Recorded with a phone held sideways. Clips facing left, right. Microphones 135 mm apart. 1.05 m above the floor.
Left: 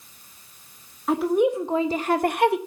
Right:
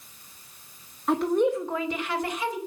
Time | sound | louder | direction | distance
1.1 | a woman speaking | left 2 dB | centre (ahead or behind) | 1.1 m